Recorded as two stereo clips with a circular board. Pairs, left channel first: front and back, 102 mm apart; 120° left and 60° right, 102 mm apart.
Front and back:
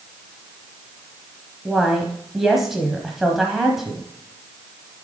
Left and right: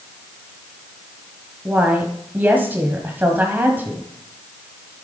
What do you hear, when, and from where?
1.6 s a woman speaking: 100° right, 1.2 m